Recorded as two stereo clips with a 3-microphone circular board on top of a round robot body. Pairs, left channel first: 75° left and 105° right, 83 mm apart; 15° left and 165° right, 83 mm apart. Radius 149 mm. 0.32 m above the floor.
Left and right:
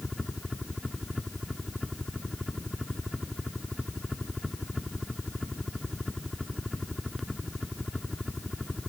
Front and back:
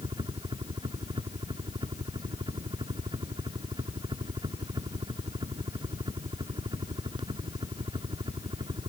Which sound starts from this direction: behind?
A helicopter, at 0.0 s.